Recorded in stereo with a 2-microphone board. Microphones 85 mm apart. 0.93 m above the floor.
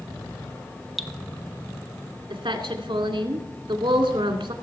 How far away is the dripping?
About 0.8 m.